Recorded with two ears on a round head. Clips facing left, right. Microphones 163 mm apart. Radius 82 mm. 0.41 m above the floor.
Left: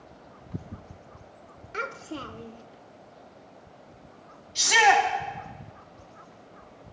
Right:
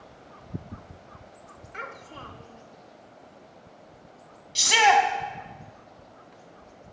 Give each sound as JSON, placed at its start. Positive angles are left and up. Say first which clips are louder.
{"t": 1.7, "sound": "a child speaking", "louder": "left 7 dB", "side_deg": 50, "distance_m": 0.6}
{"t": 4.5, "sound": "a shout", "louder": "right 1 dB", "side_deg": -40, "distance_m": 3.0}